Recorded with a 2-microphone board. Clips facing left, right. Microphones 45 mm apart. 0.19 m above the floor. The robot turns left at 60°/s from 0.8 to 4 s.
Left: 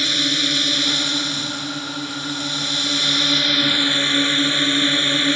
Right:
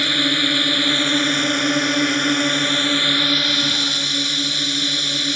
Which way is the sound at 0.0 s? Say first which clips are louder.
Right 2 dB; 20° right.